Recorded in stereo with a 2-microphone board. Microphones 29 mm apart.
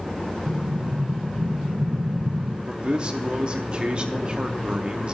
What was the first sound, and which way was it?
An explosion, 85° right.